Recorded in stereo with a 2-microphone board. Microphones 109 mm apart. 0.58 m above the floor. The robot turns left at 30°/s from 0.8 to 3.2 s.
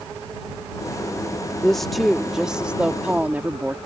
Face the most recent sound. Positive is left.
turn(degrees=-15)  # may be behind; listen again after turning